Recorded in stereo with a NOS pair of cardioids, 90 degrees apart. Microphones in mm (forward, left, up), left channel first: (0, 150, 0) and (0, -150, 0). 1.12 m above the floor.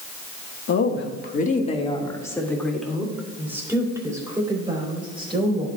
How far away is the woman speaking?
About 1.4 m.